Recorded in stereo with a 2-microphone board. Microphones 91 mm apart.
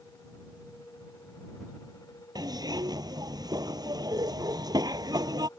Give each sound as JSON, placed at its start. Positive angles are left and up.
{"t": 2.4, "sound": "a zipper", "side_deg": -45}